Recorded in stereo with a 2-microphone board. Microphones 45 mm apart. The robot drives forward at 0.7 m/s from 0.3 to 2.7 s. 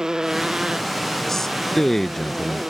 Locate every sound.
0.0 s a motorcycle: 15° right (ahead or behind); by 2.7 s 20° right (ahead or behind)
1.3 s a man speaking: 10° left (ahead or behind); by 2.6 s 5° left (ahead or behind)